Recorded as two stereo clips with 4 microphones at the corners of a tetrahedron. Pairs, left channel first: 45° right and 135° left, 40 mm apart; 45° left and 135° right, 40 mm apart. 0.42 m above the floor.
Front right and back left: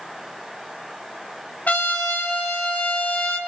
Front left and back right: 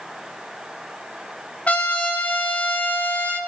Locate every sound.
1.7 s a trumpet: 5° right, 3 m